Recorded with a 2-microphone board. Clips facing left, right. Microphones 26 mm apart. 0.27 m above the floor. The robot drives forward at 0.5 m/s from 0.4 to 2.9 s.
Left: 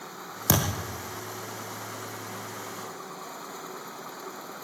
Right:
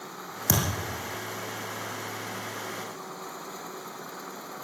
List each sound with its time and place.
0.5 s a thud: 50° left (ahead or behind), 6 m